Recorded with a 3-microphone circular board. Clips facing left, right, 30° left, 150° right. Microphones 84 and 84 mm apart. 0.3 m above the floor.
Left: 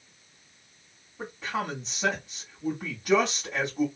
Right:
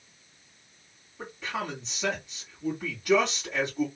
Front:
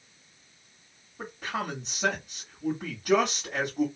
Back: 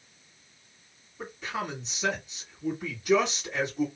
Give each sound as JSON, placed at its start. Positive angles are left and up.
{"t": 1.2, "sound": "a man speaking", "azimuth_deg": 30, "distance_m": 1.9}